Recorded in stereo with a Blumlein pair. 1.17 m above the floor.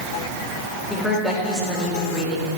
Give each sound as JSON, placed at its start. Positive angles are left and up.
{"t": 0.9, "sound": "a woman speaking", "azimuth_deg": 5, "distance_m": 5.0}